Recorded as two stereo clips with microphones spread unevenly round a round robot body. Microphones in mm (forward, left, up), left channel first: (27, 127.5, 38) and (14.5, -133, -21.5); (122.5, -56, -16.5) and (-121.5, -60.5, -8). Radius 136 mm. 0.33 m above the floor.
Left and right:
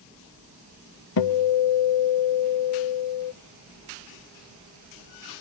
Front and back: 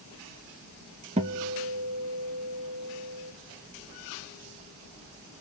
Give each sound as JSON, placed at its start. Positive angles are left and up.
{"t": 1.2, "sound": "a guitar", "azimuth_deg": 115, "distance_m": 0.6}